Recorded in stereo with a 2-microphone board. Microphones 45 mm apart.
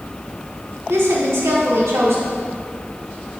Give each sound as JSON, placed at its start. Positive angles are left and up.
{"t": 0.9, "sound": "a woman speaking", "side_deg": -75, "distance_m": 1.5}